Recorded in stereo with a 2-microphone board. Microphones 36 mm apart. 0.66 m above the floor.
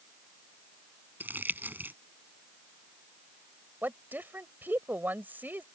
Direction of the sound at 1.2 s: 60° right (ahead or behind).